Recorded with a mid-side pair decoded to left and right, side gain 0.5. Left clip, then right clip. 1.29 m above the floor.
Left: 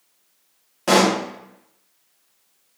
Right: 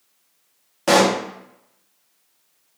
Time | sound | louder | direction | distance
0.9 | a pop | right 1 dB | 15° right | 0.8 m